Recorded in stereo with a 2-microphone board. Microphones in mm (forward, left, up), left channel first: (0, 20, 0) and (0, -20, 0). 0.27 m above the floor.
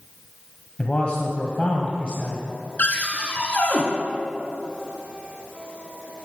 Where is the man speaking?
30° left (ahead or behind), 1.2 m.